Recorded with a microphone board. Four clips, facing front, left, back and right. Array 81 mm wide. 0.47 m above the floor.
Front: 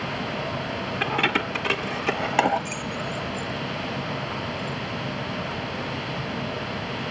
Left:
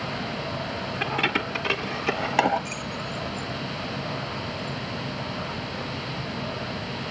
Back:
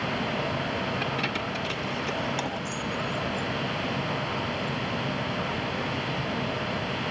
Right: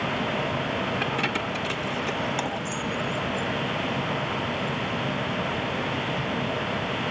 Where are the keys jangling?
5° left; by 5.1 s 40° left.